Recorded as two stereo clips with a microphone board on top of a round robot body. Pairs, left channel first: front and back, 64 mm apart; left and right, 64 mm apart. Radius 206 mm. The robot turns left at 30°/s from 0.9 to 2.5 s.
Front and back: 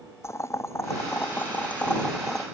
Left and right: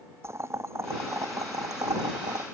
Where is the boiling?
45° right; by 2.5 s 90° right.